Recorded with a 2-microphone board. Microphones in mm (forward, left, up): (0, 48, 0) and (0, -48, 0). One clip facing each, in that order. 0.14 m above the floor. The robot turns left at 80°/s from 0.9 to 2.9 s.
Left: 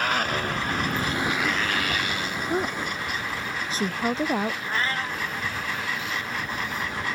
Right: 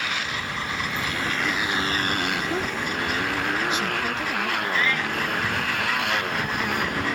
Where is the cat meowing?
35° left (ahead or behind).